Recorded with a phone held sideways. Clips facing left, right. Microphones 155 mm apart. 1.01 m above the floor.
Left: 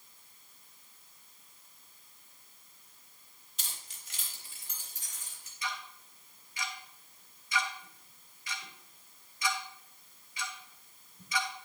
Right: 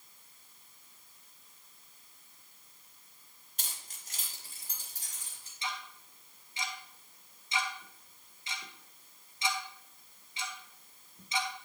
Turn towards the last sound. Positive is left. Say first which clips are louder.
# even
turn(degrees=-25)  # may be behind; listen again after turning